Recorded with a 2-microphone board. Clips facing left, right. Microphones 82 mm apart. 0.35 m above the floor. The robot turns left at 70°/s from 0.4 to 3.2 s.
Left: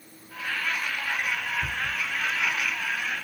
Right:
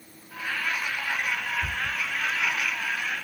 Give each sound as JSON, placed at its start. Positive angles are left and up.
{"t": 1.6, "sound": "a cupboard door", "side_deg": 0, "distance_m": 3.5}